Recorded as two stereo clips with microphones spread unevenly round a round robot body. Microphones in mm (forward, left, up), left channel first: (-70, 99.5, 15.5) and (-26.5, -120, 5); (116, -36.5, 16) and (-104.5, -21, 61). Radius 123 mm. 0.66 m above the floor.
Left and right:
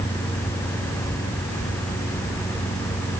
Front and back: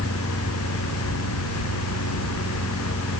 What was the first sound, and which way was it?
Only background noise.